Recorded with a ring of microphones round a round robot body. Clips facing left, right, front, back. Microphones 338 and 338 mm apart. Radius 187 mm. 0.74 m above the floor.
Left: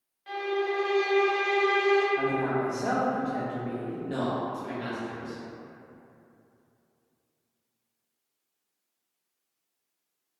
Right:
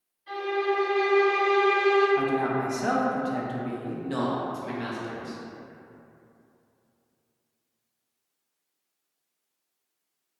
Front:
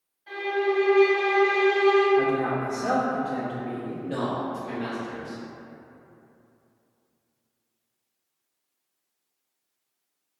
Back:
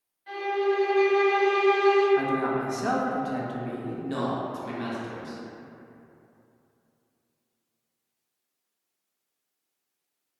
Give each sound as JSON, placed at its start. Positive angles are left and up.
{"t": 0.3, "sound": "a violin", "azimuth_deg": 110, "distance_m": 1.3}
{"t": 2.2, "sound": "a man speaking", "azimuth_deg": -135, "distance_m": 0.6}
{"t": 4.0, "sound": "a man speaking", "azimuth_deg": -135, "distance_m": 0.7}